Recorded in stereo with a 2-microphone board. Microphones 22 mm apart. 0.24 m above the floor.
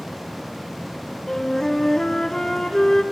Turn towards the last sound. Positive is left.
turn(degrees=25)  # may be behind; listen again after turning